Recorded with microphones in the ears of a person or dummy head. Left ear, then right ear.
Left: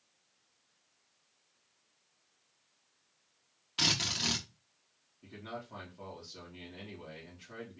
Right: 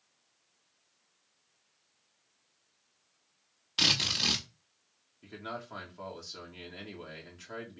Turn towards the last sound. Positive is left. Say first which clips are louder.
# right 4 dB
turn(degrees=-50)  # may be behind; listen again after turning